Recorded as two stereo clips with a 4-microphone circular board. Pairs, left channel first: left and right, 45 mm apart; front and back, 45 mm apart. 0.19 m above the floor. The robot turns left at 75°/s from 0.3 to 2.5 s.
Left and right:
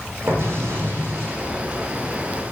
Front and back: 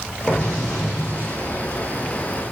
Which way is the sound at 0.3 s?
55° right.